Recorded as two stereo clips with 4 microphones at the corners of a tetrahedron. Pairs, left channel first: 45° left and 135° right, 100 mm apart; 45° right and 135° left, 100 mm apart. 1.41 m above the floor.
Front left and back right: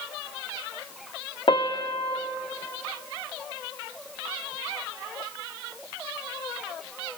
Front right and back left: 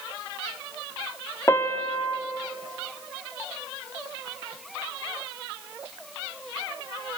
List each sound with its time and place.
1.5 s a piano: 15° left, 0.6 m